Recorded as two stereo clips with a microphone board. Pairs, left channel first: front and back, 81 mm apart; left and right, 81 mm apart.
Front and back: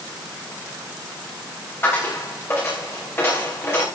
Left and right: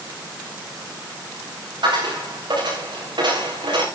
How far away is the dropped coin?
About 7.5 m.